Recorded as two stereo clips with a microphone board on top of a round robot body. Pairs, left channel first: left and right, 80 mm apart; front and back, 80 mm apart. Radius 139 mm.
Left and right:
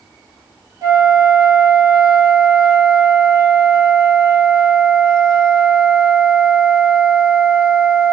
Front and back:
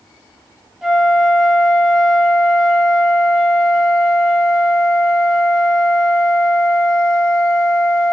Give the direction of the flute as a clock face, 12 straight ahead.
3 o'clock.